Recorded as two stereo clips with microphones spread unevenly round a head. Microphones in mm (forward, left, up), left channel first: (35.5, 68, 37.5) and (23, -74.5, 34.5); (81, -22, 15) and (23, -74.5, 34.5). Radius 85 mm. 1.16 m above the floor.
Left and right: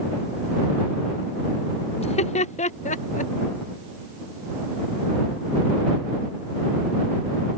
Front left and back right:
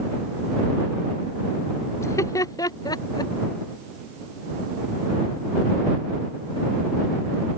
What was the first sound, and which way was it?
Laughter, 55° left.